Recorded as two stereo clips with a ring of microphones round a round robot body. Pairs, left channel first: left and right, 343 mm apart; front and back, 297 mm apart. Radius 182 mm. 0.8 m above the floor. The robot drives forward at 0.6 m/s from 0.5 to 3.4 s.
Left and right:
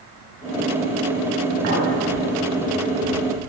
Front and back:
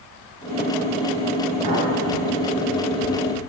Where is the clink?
140° right, 4.5 m.